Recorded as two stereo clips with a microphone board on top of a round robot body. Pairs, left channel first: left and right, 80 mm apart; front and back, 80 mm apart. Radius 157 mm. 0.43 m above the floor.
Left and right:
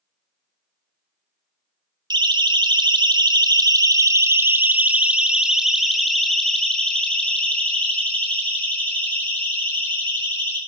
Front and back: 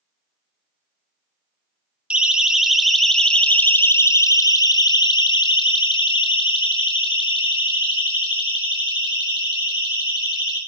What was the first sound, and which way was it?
A siren, 105° right.